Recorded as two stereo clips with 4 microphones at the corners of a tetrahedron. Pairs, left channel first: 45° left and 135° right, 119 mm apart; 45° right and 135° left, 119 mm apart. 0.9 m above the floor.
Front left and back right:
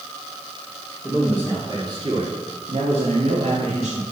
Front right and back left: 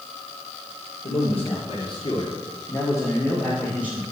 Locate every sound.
1.0 s a man speaking: 60° right, 2 m; by 4.0 s 150° right, 2 m